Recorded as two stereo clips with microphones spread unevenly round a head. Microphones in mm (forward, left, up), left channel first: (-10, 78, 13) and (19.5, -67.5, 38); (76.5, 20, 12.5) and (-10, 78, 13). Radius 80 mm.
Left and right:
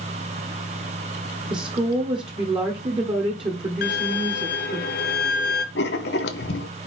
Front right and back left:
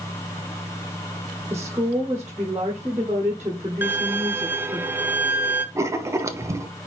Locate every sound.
1.5 s a woman speaking: 140° right, 1.3 m
3.8 s a violin: 85° left, 1.0 m
5.8 s writing: 90° left, 0.9 m